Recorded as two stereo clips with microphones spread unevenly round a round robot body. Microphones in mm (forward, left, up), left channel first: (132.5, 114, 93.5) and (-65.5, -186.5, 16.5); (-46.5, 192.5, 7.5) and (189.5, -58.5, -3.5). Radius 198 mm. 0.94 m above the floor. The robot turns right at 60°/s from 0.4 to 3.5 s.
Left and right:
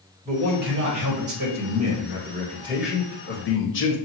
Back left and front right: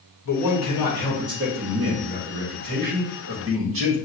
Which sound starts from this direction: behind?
A man speaking, at 0.2 s.